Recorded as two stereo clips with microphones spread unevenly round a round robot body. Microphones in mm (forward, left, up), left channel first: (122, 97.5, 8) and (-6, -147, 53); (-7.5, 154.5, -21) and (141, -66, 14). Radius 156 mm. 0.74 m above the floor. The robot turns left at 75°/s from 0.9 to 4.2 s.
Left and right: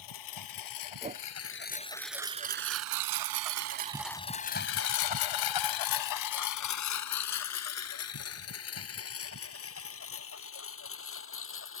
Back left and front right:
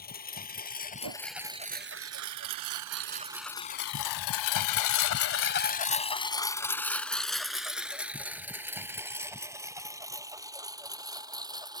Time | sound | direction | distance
0.0 | a lawn mower | 65° left | ?
1.0 | a whoosh | 45° right | ?